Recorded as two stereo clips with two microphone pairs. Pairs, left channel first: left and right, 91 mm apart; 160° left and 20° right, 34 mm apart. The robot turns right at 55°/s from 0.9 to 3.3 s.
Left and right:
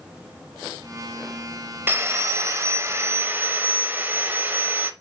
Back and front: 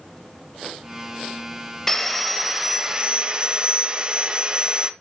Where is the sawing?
125° right, 1.0 m; by 4.9 s 45° right, 1.0 m.